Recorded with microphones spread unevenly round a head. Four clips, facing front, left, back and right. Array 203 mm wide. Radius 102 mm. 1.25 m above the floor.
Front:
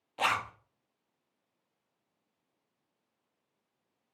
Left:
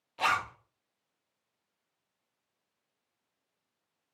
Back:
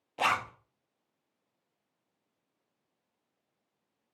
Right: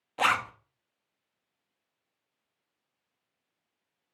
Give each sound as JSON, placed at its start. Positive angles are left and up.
{"t": 0.2, "sound": "a zipper", "azimuth_deg": -130, "distance_m": 0.6}